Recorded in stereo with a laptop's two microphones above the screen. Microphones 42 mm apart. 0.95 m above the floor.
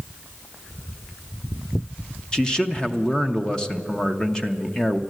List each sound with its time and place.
2.3 s a man speaking: 15° left (ahead or behind), 0.7 m